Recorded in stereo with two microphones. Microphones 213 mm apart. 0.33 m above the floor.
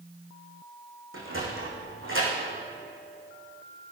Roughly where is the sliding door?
Right.